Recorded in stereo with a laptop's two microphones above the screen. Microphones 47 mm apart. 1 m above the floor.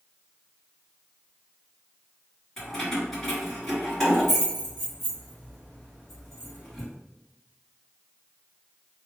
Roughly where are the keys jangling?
Centre.